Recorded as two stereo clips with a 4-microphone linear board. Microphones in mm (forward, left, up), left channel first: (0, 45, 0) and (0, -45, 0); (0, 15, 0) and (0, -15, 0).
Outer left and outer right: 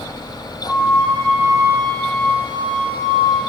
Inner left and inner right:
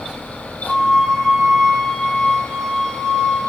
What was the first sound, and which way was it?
A flute, 20° left (ahead or behind).